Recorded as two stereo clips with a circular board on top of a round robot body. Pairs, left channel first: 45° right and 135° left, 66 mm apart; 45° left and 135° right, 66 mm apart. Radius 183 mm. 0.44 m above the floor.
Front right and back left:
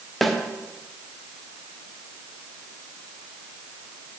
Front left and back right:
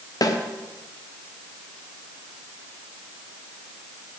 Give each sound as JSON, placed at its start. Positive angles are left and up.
{"t": 0.2, "sound": "a snare drum", "azimuth_deg": 45, "distance_m": 1.6}